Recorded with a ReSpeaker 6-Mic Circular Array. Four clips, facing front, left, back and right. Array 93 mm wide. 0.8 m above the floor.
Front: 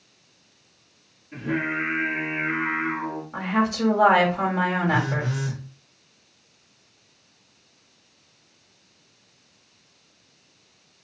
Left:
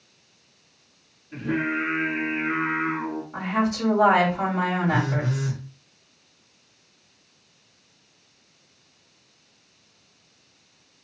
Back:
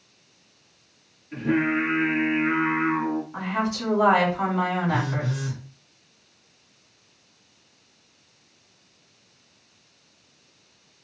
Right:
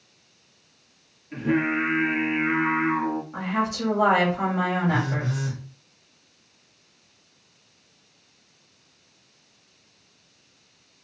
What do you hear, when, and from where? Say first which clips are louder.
1.3 s singing: right 3 dB, back 4 dB; 110° right, 1.7 m
3.3 s a woman speaking: left 2 dB, front 3 dB; 5° right, 1.5 m
4.9 s a phone buzzing: left 1 dB, front 2 dB; 20° left, 1.2 m